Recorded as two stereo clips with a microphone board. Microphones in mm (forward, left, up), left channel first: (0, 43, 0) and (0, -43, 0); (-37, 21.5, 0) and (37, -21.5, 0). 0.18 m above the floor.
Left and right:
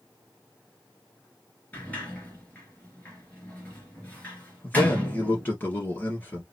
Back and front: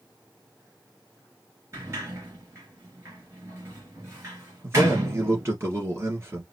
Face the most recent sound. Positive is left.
turn(degrees=25)